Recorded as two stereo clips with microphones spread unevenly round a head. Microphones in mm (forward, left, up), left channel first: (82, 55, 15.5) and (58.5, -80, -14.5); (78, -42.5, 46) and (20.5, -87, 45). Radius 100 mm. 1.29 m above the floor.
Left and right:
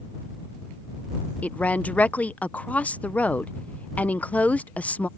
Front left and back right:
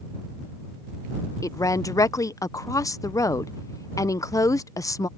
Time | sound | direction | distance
1.4 | a woman speaking | 5° right | ?